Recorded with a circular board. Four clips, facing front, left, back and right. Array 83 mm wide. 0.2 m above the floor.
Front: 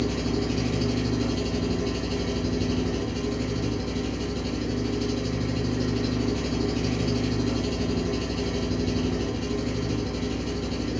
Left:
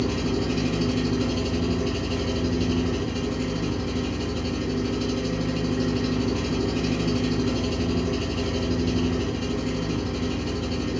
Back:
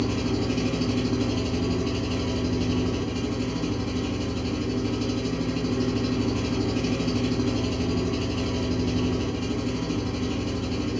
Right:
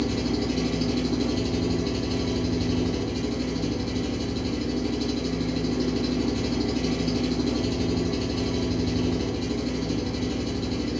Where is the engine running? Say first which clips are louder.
Left 1 dB, back 1 dB; 105° left, 1.6 m.